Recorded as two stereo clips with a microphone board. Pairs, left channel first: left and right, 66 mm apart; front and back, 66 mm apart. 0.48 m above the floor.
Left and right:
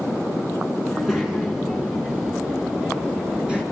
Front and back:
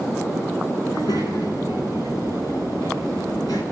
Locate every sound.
0.8 s a child speaking: 5° right, 4.5 m; by 3.6 s 15° right, 6.5 m